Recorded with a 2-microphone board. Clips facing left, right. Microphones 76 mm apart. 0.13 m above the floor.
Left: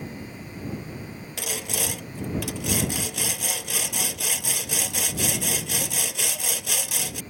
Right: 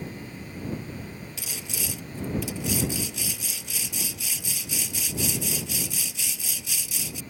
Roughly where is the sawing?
Left.